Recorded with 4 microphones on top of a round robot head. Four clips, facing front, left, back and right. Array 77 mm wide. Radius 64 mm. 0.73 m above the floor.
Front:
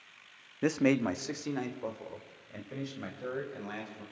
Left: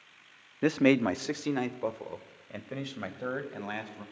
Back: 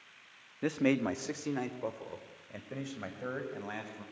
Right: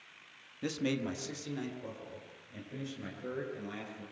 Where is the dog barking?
I don't hear a dog barking.